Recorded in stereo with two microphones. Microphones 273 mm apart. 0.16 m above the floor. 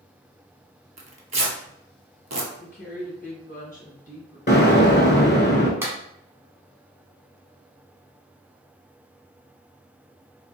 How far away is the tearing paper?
About 0.7 m.